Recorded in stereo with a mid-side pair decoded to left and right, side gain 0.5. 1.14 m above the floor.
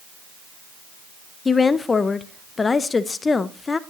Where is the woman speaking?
30° left, 0.5 m.